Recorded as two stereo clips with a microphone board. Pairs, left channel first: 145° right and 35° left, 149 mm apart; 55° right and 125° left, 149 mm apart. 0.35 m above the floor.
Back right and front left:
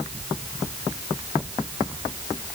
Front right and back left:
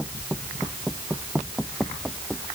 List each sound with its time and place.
Only background noise.